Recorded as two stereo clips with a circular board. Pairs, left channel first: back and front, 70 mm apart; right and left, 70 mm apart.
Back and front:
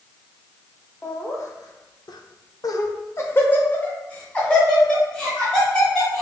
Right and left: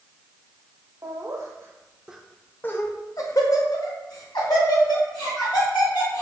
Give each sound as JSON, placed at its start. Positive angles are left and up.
{"t": 1.0, "sound": "laughter", "azimuth_deg": 125, "distance_m": 0.8}